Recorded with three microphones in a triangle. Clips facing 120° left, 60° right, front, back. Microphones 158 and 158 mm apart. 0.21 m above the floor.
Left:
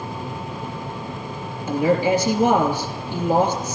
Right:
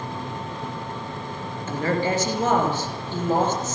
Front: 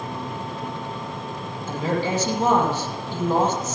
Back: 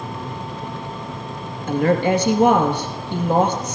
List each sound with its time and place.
1.7 s a woman speaking: 165° right, 3.5 m